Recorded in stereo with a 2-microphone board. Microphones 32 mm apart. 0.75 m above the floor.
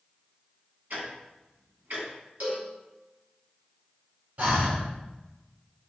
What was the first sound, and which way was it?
Ticking, 85° right.